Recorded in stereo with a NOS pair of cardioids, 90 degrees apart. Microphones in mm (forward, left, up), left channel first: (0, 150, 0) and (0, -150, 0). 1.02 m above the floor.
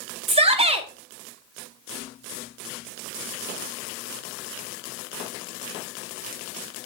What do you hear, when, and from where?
0.3 s a shout: 20° right, 2 m